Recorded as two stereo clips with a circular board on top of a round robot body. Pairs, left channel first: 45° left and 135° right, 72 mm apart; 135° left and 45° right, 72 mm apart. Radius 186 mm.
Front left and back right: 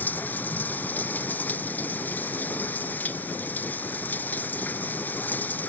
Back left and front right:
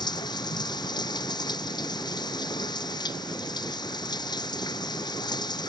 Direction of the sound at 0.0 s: 115° left.